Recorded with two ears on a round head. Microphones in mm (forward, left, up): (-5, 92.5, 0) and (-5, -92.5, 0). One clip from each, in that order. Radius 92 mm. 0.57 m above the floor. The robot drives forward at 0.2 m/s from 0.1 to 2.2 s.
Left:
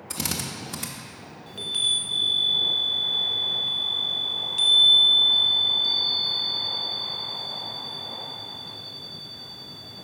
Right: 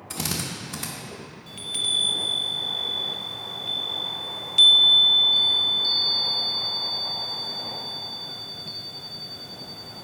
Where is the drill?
10° left (ahead or behind), 0.5 m; by 0.9 s 5° left (ahead or behind), 0.7 m.